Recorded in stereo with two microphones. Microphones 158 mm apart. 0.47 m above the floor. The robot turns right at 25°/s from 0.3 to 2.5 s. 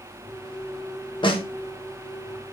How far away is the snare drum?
About 0.7 m.